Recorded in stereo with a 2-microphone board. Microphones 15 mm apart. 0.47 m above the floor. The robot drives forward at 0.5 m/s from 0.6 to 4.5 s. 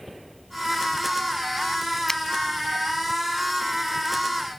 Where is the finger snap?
30° left (ahead or behind).